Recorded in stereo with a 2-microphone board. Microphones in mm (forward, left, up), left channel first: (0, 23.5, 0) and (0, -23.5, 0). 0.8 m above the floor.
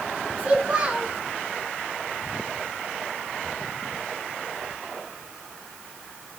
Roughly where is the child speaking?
Right.